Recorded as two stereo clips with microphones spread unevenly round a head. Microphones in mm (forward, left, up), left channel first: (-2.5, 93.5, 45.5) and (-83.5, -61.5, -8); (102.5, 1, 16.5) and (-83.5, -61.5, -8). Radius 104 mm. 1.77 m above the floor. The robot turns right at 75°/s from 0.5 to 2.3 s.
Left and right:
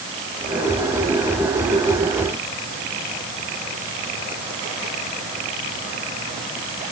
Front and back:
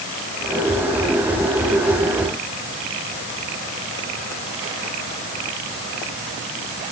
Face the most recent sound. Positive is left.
No sound to turn to.